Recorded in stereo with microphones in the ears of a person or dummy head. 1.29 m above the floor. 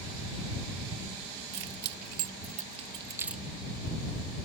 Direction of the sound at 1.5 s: 60° right (ahead or behind).